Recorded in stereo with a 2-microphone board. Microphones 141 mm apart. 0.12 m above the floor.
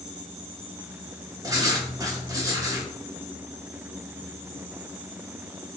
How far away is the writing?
About 1.3 m.